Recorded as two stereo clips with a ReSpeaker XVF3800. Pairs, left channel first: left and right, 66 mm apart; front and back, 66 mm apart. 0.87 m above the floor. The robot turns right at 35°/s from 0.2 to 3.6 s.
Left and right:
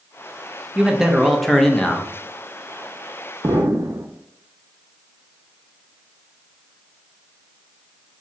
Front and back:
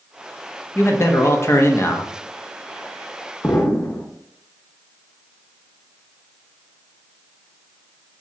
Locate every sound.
0.8 s a man speaking: 20° right, 0.6 m; by 2.1 s 25° left, 0.6 m
3.4 s an explosion: 60° right, 0.5 m; by 4.1 s 55° right, 0.5 m